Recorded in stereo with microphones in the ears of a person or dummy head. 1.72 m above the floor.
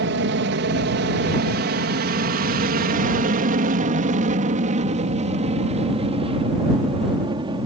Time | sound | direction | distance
0.0 | an aircraft | 60° right (ahead or behind) | ?